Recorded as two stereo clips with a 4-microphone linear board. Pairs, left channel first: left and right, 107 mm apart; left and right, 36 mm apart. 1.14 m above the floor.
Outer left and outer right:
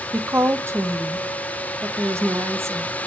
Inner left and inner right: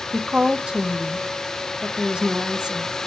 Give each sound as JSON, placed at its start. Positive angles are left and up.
{"t": 0.1, "sound": "a woman speaking", "side_deg": -25, "distance_m": 0.8}